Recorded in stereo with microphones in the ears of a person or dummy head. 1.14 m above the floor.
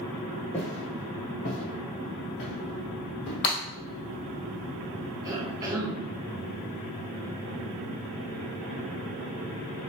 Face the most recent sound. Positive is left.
turn(degrees=-20)  # may be behind; listen again after turning